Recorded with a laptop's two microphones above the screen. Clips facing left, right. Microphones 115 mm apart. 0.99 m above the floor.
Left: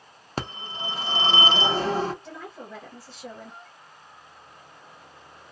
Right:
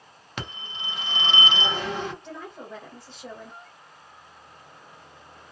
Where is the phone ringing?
35° left (ahead or behind), 0.6 m.